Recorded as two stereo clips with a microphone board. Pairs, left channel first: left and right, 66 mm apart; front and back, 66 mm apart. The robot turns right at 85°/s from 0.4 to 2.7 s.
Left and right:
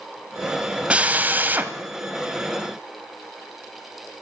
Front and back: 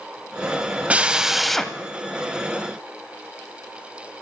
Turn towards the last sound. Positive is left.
turn(degrees=15)